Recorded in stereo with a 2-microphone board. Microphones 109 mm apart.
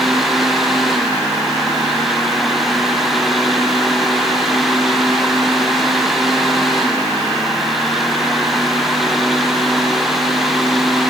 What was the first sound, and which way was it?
Only background noise.